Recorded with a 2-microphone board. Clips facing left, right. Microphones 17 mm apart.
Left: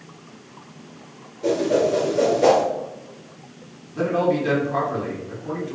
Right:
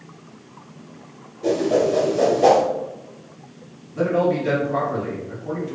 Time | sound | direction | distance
1.4 | a whoosh | 5° left (ahead or behind) | 1.8 m
3.9 | a man speaking | 15° left (ahead or behind) | 1.0 m